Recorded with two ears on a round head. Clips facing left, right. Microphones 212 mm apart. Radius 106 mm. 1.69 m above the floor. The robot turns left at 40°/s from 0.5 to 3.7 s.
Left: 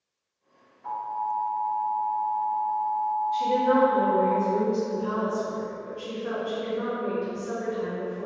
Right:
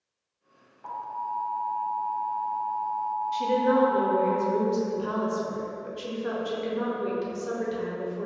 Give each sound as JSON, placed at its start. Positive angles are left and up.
{"t": 0.8, "sound": "an alarm", "azimuth_deg": -70, "distance_m": 1.7}
{"t": 3.3, "sound": "a woman speaking", "side_deg": -40, "distance_m": 0.7}